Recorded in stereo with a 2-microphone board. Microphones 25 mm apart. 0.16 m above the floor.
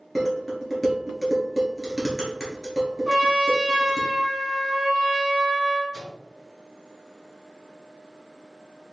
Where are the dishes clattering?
Centre (ahead or behind), 1.6 m.